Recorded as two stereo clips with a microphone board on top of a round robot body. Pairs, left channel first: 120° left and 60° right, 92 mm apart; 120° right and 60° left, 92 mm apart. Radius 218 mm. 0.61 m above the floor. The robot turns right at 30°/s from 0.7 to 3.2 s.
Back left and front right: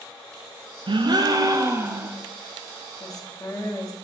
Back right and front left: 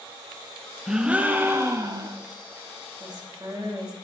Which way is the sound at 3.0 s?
80° left.